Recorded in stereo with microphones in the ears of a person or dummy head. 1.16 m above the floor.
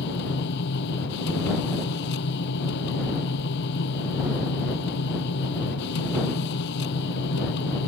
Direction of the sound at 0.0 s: 55° left (ahead or behind).